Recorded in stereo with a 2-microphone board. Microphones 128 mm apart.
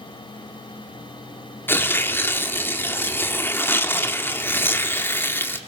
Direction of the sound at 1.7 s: 15° left (ahead or behind).